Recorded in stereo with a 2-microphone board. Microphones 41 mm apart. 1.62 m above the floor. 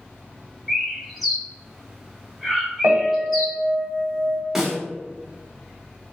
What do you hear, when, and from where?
0.7 s a bird: centre (ahead or behind), 0.9 m
2.8 s a piano: 75° right (ahead or behind), 0.8 m
4.5 s a snare drum: 10° right (ahead or behind), 1.0 m